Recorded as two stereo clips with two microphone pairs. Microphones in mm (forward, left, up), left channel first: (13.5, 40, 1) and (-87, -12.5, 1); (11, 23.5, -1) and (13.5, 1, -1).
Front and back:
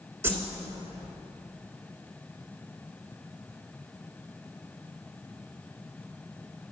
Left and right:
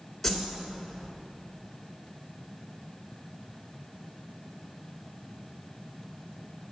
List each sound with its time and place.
0.2 s a whoosh: 175° left, 1.6 m